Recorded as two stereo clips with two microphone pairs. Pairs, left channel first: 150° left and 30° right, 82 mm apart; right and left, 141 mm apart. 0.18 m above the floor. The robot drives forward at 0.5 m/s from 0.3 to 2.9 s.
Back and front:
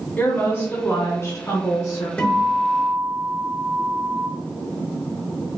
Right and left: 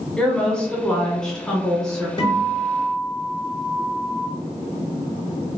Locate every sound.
0.2 s a woman speaking: 165° right, 1.3 m; by 2.1 s 175° right, 1.9 m
2.2 s a guitar: 135° right, 2 m; by 4.3 s 140° right, 2.5 m